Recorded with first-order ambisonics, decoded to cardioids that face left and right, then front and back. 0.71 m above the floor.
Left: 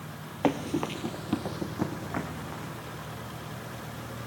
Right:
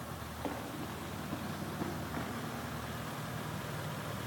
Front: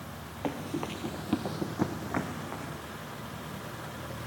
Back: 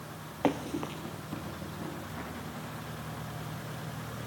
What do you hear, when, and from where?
0.4 s running footsteps: 120° left, 1.1 m; by 2.8 s 25° left, 3.5 m